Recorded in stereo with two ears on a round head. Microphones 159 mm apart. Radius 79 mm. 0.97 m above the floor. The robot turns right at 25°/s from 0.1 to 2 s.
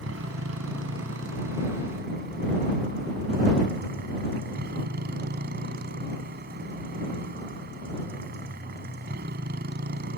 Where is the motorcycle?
100° right; by 10.2 s 55° right.